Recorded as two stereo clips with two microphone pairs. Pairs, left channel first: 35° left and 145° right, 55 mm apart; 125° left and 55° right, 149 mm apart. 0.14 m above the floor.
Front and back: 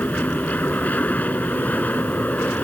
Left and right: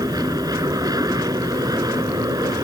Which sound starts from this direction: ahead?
An aircraft, at 0.0 s.